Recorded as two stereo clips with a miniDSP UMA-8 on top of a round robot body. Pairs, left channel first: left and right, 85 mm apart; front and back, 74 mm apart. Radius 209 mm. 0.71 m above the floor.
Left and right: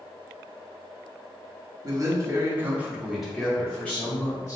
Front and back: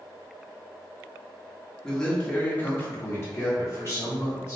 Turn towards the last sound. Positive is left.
turn(degrees=35)